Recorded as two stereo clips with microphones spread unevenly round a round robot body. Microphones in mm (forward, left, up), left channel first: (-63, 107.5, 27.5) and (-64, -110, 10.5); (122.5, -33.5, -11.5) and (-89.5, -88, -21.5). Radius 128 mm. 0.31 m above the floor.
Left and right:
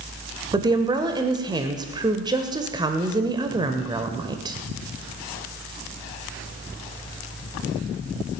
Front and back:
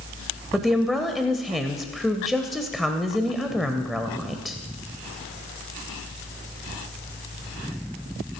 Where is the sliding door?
I don't hear a sliding door.